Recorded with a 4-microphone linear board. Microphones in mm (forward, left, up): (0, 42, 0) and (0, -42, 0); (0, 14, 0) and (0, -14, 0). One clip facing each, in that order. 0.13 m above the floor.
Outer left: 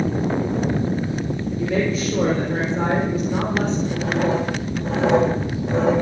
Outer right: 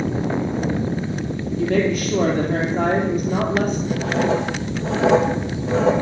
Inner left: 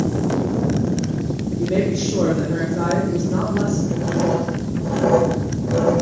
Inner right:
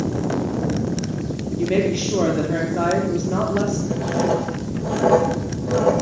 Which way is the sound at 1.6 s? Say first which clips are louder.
Outer right 3 dB, inner right 1 dB; 55° right (ahead or behind).